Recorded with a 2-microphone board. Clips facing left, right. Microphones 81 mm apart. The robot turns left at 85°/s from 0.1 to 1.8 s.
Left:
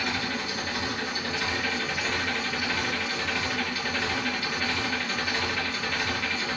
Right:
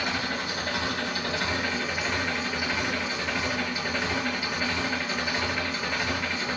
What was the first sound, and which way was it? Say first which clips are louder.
An engine running: right 1 dB; 25° right.